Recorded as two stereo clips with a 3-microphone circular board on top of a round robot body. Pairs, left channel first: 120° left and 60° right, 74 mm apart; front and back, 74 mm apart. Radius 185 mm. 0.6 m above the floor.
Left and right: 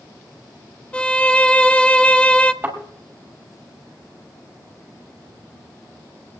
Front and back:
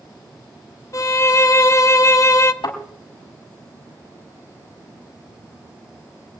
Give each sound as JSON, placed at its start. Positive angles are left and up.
{"t": 0.9, "sound": "a violin", "azimuth_deg": 45, "distance_m": 0.6}
{"t": 2.6, "sound": "a thud", "azimuth_deg": 10, "distance_m": 6.0}